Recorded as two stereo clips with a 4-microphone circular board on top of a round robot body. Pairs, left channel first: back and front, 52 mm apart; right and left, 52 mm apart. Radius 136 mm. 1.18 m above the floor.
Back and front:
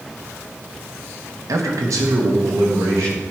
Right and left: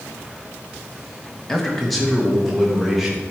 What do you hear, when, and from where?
1.5 s a man speaking: 10° right, 1.4 m; by 3.2 s 5° left, 3.5 m